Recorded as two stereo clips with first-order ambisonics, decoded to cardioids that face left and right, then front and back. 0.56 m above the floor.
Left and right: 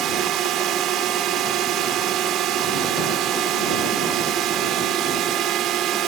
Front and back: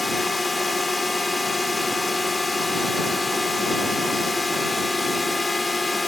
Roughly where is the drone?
Right.